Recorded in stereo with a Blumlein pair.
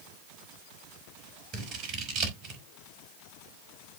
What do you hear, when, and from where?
1.5 s scissors: 30° right, 5 m